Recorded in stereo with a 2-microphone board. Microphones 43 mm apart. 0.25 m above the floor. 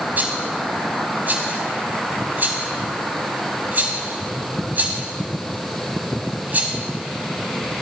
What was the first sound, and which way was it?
A rattle, 45° right (ahead or behind).